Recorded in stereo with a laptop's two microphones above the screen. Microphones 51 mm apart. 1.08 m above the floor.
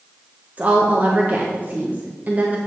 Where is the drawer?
No drawer in this recording.